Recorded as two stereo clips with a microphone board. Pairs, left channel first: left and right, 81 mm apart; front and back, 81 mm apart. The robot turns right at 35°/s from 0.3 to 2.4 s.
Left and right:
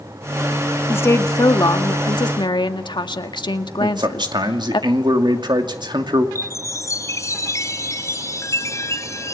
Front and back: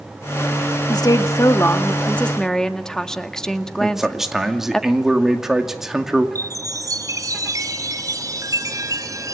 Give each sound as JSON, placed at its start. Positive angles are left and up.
{"t": 0.9, "sound": "a woman speaking", "azimuth_deg": 30, "distance_m": 1.6}
{"t": 3.8, "sound": "a man speaking", "azimuth_deg": -95, "distance_m": 2.5}
{"t": 6.3, "sound": "a chime", "azimuth_deg": 140, "distance_m": 2.5}